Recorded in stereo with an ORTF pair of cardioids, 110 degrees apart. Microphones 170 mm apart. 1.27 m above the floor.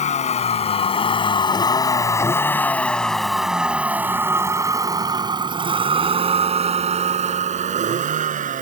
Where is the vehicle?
45° left; by 8.6 s 50° right.